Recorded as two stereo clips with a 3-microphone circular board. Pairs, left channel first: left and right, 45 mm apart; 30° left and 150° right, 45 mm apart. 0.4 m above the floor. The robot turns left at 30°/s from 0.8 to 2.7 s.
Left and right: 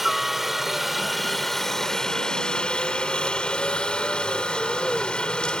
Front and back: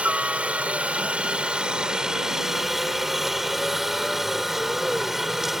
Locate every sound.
0.0 s a helicopter: 170° right; by 5.6 s 130° left